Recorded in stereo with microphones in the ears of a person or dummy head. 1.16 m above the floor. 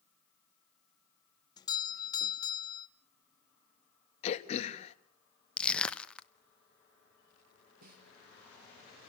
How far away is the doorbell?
About 0.7 m.